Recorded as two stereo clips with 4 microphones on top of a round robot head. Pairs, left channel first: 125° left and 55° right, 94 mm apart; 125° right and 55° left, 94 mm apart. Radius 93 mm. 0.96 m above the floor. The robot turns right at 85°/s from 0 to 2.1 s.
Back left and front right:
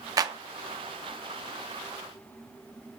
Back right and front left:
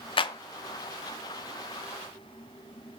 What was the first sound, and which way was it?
A clap, 105° right.